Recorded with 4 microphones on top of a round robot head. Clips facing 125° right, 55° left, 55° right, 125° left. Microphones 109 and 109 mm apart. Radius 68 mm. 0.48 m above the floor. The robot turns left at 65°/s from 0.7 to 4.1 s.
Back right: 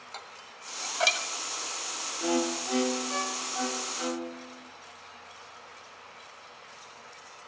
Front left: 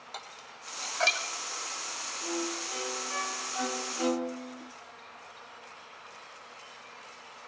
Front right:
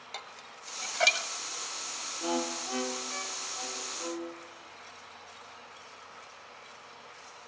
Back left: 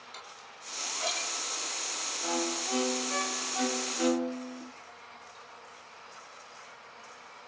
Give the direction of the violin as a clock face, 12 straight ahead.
4 o'clock.